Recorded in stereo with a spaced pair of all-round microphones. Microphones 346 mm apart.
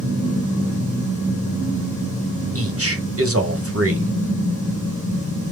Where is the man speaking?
40° right (ahead or behind), 1.5 m.